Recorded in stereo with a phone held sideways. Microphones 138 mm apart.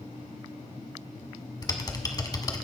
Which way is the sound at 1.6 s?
25° left (ahead or behind).